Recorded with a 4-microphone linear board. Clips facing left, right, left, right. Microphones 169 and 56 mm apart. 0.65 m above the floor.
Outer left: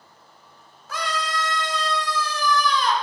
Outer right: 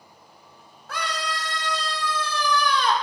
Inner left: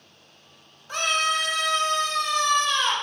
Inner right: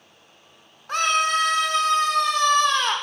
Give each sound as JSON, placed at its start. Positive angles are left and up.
{"t": 0.9, "sound": "a scream", "side_deg": -60, "distance_m": 1.3}